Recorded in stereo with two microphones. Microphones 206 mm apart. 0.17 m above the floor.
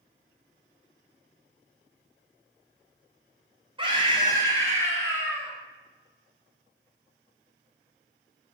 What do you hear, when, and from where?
3.8 s a scream: 25° right (ahead or behind), 1.3 m; by 5.5 s 5° right (ahead or behind), 1.7 m